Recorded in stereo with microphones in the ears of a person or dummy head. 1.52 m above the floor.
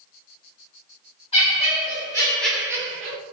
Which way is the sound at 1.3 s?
30° left (ahead or behind).